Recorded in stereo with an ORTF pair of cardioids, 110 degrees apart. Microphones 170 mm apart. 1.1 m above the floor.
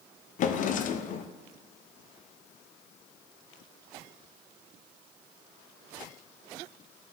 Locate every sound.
0.4 s a drawer: 50° left, 0.6 m